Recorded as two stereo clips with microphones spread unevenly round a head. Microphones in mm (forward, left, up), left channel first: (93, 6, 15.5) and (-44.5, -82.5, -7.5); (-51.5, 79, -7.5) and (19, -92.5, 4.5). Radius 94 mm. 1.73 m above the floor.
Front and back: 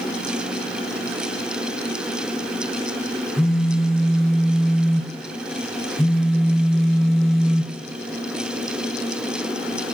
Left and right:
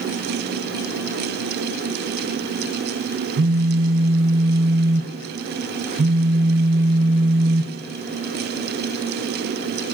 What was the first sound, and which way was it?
A phone buzzing, 55° right.